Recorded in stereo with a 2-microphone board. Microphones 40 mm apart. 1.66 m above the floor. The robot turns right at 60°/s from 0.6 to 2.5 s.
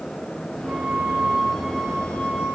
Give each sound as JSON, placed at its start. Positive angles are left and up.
{"t": 0.7, "sound": "a flute", "azimuth_deg": -60, "distance_m": 3.0}